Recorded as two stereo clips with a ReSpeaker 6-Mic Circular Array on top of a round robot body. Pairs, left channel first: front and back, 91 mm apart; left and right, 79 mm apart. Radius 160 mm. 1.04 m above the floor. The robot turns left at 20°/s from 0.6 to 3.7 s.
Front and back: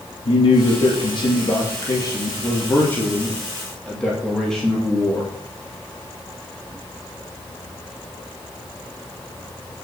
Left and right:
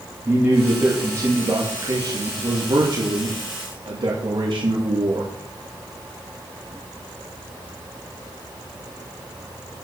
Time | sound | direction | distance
0.2 | a man speaking | 25° right | 3 m